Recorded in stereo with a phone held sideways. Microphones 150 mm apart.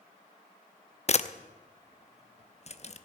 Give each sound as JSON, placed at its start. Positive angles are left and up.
{"t": 1.1, "sound": "a camera shutter", "side_deg": 45, "distance_m": 0.6}